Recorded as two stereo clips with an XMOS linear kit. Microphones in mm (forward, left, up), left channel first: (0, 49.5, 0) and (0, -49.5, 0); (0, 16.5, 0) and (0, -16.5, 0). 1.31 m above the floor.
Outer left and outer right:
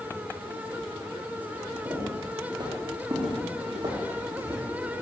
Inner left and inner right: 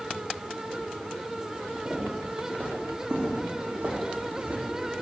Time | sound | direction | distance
1.9 | footsteps | 45° right (ahead or behind) | 3.5 m